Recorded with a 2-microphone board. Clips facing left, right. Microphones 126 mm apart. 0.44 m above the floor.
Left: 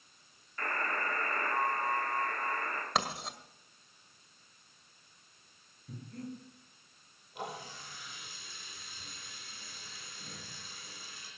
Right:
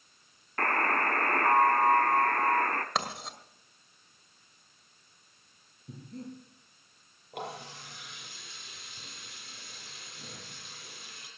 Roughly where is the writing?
Centre.